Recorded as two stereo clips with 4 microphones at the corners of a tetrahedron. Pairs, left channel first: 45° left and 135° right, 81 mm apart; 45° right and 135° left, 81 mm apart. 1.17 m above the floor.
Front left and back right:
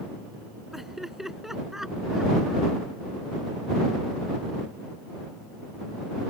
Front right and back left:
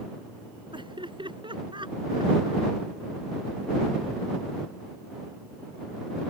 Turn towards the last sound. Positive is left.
turn(degrees=140)